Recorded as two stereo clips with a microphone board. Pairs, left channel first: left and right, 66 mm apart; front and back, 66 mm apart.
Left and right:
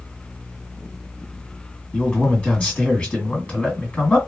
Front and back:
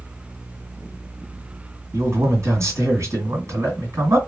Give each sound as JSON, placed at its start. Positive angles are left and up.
{"t": 1.9, "sound": "a man speaking", "azimuth_deg": 155, "distance_m": 1.8}